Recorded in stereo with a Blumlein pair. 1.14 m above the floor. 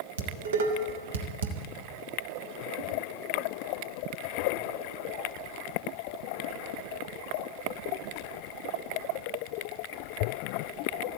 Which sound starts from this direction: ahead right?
Dishes clattering, at 0.2 s.